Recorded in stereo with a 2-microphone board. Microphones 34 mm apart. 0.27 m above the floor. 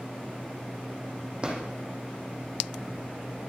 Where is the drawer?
30° right (ahead or behind), 3 m.